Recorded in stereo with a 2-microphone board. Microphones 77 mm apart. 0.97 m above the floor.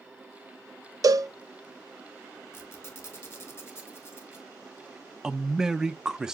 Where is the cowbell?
50° right (ahead or behind), 0.6 m.